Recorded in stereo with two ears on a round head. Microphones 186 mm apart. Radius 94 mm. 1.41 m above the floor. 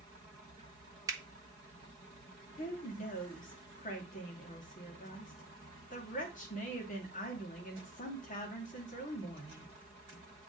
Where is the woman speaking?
40° left (ahead or behind), 2.5 m.